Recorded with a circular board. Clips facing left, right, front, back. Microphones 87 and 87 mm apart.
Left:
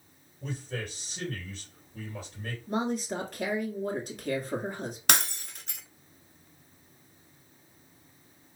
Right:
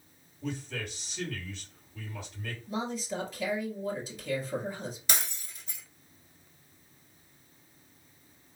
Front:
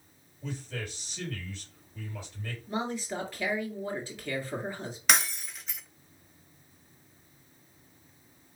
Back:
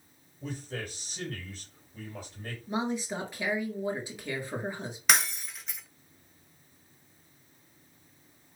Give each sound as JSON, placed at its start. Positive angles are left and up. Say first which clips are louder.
{"t": 0.4, "sound": "a man speaking", "louder": "even, back 1 dB", "azimuth_deg": 135, "distance_m": 3.0}
{"t": 2.7, "sound": "a woman speaking", "louder": "left 4 dB, back 2 dB", "azimuth_deg": 110, "distance_m": 2.0}
{"t": 5.1, "sound": "breaking glass", "louder": "left 7 dB, even", "azimuth_deg": 90, "distance_m": 0.6}